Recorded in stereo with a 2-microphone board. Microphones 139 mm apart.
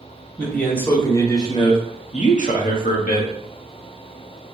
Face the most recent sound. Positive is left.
turn(degrees=80)